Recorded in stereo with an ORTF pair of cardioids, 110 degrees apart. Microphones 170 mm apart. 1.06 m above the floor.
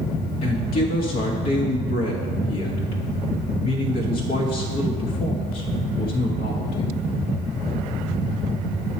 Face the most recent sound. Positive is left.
turn(degrees=60)